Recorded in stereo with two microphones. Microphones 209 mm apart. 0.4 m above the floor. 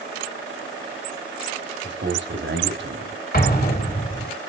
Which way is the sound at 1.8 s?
60° right (ahead or behind).